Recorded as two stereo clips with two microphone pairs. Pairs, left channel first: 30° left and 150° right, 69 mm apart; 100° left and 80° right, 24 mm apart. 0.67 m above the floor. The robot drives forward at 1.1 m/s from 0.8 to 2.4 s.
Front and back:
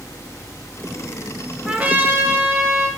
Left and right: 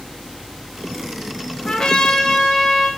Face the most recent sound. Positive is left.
turn(degrees=165)